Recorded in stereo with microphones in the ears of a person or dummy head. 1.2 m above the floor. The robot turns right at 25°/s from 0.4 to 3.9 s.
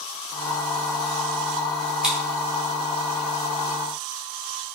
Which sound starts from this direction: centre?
Scissors, at 2.0 s.